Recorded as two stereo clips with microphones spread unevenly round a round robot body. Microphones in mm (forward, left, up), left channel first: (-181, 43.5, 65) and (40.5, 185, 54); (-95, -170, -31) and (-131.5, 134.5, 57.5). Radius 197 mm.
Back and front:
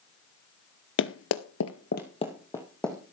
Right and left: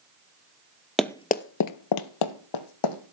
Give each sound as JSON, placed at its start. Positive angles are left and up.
{"t": 1.0, "sound": "running footsteps", "azimuth_deg": 180, "distance_m": 1.2}